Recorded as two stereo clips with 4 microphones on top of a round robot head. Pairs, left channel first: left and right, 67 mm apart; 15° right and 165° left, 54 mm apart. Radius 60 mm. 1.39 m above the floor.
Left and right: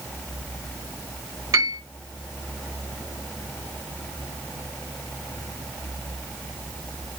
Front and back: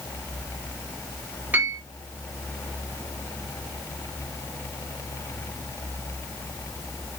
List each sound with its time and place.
1.5 s a piano: 125° right, 2.5 m